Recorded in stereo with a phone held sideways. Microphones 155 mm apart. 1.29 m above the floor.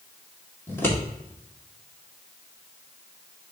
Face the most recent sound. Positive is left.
turn(degrees=15)  # may be behind; listen again after turning